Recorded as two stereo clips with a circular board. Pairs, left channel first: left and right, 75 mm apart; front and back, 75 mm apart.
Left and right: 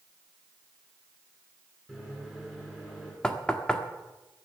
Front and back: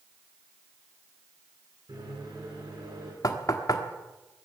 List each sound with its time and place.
1.9 s a microwave: straight behind, 7 m
3.2 s knocking: 15° left, 1.4 m